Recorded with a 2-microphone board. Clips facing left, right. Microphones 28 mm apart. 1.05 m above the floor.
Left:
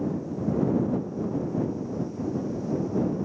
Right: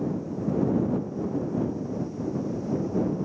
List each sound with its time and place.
Only background noise.